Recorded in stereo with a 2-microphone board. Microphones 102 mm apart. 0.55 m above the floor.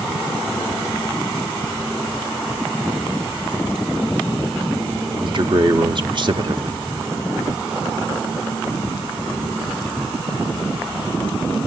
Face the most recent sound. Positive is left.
turn(degrees=-50)  # may be behind; listen again after turning